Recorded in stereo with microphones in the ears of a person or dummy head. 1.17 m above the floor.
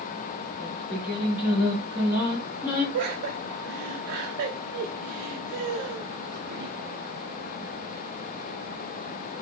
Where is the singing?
10° right (ahead or behind), 1.9 m.